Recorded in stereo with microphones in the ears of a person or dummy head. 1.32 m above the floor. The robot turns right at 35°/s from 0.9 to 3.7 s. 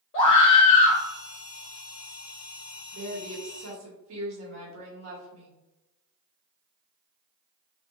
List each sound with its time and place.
0.1 s a scream: 25° left (ahead or behind), 1.3 m; by 1.0 s 20° left (ahead or behind), 1.3 m
2.9 s a woman speaking: 60° right (ahead or behind), 1.5 m; by 5.6 s 80° right, 1.5 m